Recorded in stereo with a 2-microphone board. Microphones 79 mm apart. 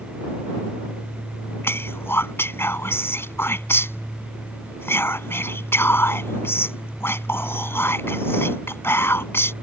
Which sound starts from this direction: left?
Whispering, at 1.6 s.